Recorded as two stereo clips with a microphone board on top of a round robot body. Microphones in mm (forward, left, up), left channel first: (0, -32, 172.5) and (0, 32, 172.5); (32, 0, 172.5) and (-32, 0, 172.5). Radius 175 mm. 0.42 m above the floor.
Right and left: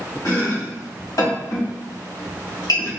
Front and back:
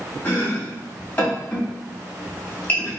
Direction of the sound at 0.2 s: 65° right.